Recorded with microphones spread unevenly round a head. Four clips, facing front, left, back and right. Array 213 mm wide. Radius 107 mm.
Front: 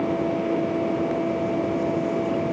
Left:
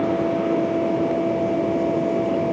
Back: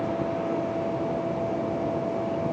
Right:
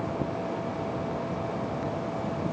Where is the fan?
60° left.